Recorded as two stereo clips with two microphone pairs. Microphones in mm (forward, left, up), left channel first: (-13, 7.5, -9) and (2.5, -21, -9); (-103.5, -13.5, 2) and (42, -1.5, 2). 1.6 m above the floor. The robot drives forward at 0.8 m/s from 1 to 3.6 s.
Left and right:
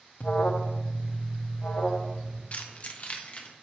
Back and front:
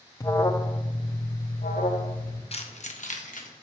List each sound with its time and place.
0.2 s an alarm: 130° left, 0.5 m; by 2.4 s 165° left, 1.5 m
2.5 s keys jangling: 150° left, 0.9 m; by 3.5 s 165° left, 1.6 m